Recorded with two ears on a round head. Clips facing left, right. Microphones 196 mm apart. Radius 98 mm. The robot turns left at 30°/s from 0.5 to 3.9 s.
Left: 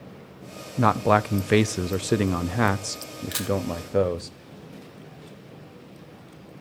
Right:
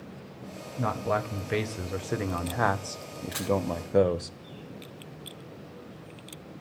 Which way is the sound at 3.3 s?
60° left (ahead or behind).